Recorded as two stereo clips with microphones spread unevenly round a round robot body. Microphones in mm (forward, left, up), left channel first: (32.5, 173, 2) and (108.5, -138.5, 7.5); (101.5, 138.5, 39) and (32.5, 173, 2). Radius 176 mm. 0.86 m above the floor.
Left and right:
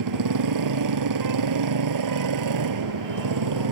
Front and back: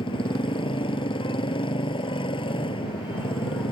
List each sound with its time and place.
0.0 s a motorcycle: 50° right